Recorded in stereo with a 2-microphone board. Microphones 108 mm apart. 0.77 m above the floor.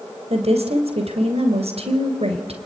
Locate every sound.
0.3 s a woman speaking: 80° right, 3 m